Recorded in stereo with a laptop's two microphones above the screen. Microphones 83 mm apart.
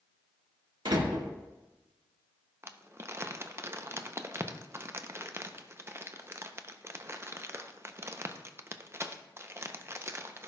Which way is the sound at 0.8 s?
70° right (ahead or behind).